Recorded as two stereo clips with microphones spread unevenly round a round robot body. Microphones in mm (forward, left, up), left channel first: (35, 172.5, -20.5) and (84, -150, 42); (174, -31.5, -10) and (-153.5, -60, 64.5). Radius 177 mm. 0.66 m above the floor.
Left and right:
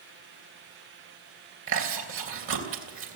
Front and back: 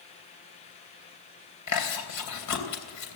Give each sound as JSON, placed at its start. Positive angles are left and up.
{"t": 1.7, "sound": "chewing", "azimuth_deg": -30, "distance_m": 3.0}